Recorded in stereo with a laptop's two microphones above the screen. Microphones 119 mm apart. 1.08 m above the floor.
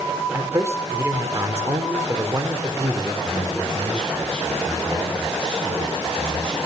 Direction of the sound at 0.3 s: 20° right (ahead or behind).